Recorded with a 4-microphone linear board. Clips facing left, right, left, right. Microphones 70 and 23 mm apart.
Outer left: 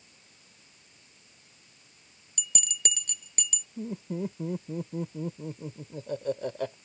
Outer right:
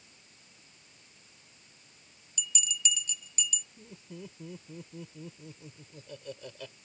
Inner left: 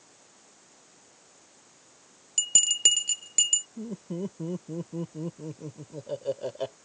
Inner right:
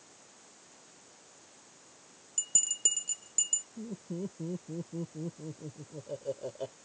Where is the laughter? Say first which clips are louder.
Outer left 13 dB, inner left 4 dB; 45° left (ahead or behind).